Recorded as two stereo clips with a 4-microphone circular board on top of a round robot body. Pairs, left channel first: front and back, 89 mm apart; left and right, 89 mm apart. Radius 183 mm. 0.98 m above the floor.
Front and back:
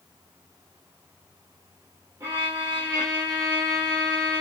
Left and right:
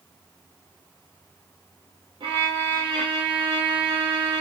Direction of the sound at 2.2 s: 120° right.